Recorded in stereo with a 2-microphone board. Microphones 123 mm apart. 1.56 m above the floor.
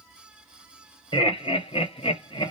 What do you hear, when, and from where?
1.1 s laughter: 40° left (ahead or behind), 1.0 m; by 2.5 s 35° left (ahead or behind), 0.6 m